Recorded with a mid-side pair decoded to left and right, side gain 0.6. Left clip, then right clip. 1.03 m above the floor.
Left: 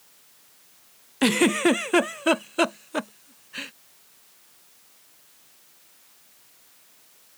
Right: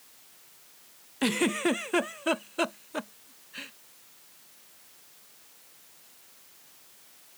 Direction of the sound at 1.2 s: 35° left.